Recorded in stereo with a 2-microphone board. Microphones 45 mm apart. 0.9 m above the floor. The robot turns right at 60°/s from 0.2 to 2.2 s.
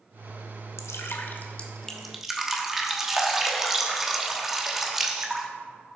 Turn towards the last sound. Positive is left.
turn(degrees=-175)